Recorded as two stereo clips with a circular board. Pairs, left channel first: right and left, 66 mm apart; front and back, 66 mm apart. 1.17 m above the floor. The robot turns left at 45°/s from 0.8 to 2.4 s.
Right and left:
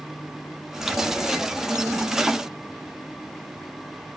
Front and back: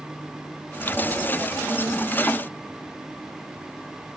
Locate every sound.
Only background noise.